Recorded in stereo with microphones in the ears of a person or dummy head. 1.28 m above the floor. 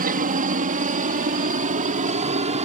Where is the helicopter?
35° right (ahead or behind); by 2.6 s 25° right (ahead or behind).